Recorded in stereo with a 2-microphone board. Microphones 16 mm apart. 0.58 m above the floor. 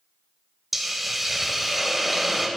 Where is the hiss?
10° right (ahead or behind), 0.7 m.